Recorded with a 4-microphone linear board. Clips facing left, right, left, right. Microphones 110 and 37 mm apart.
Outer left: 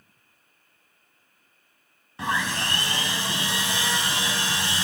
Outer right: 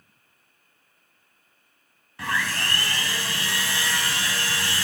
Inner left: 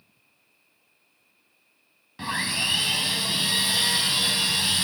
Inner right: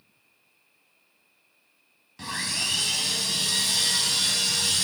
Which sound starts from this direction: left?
Sawing, at 2.2 s.